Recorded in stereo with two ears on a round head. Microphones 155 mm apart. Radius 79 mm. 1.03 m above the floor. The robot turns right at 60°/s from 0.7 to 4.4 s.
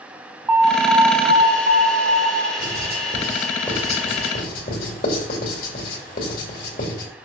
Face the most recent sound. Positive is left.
turn(degrees=50)  # may be behind; listen again after turning